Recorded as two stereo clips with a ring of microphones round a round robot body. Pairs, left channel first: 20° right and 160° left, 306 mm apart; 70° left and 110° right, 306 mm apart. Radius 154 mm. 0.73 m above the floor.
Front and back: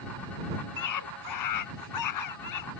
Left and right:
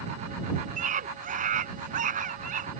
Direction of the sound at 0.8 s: 45° right.